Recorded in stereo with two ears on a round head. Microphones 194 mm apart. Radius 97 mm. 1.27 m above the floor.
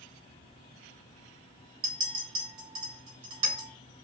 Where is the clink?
20° right (ahead or behind), 1.9 m.